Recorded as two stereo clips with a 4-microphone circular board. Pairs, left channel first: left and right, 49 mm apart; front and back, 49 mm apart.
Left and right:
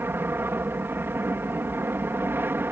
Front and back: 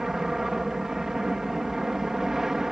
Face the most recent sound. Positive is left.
turn(degrees=-100)